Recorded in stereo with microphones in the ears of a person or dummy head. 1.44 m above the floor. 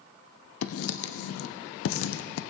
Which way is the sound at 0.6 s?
80° left.